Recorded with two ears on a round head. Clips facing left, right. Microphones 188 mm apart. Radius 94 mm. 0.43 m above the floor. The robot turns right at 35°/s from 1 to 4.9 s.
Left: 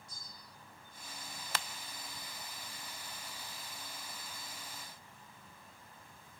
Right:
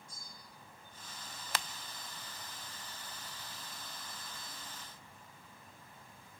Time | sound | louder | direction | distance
0.1 | a bell | right 1 dB | 55° left (ahead or behind) | 7 m